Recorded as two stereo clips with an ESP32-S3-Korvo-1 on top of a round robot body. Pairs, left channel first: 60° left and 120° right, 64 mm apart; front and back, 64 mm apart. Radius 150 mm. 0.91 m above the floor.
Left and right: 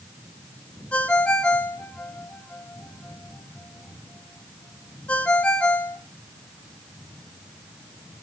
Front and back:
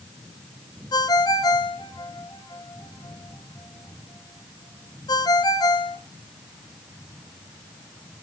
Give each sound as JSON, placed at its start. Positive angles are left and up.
{"t": 0.9, "sound": "a ringtone", "azimuth_deg": -15, "distance_m": 1.6}